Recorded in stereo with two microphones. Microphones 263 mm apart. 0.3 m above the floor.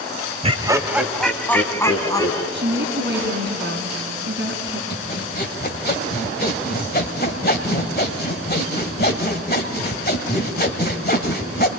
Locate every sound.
0.4 s laughter: 25° right (ahead or behind), 1.1 m; by 2.4 s 15° left (ahead or behind), 3 m
2.5 s a woman speaking: 45° right (ahead or behind), 3.5 m
4.9 s sawing: 35° left (ahead or behind), 1.7 m